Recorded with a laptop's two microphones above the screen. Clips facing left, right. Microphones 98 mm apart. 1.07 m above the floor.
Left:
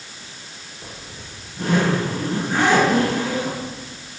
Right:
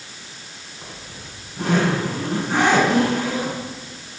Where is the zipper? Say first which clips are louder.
Even; 80° right, 6 m.